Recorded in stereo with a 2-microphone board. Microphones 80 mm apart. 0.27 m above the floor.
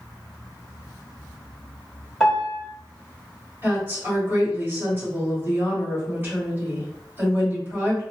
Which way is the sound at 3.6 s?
30° right (ahead or behind).